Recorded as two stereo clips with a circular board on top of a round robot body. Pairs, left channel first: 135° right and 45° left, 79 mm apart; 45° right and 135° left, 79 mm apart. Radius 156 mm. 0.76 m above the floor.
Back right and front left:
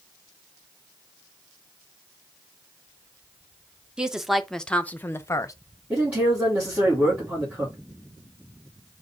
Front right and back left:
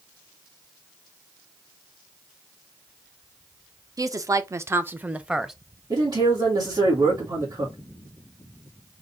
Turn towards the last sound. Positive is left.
turn(degrees=115)